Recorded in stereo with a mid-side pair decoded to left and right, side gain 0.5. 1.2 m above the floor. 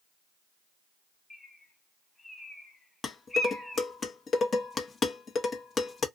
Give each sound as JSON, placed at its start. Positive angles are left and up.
{"t": 1.3, "sound": "a bird", "azimuth_deg": 15, "distance_m": 1.6}
{"t": 3.0, "sound": "dishes clattering", "azimuth_deg": 35, "distance_m": 0.9}